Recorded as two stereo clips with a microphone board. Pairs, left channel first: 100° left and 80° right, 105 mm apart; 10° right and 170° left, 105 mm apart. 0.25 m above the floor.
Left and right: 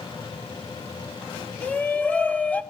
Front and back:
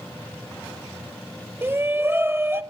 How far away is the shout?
About 0.9 m.